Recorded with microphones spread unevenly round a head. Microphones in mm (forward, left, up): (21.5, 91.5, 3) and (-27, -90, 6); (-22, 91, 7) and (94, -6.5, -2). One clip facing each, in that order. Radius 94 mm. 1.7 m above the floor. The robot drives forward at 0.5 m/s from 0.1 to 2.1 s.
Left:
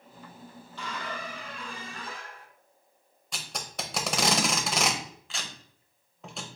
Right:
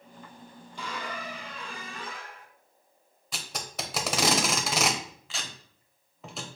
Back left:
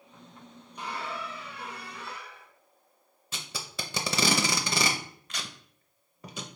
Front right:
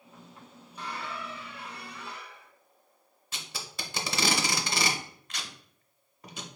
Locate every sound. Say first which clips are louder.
0.8 s a squeak: even, back left 2 dB; 170° right, 0.6 m; by 2.5 s 175° right, 1.0 m
3.3 s tape being pulled: even, back left 2 dB; 165° left, 0.5 m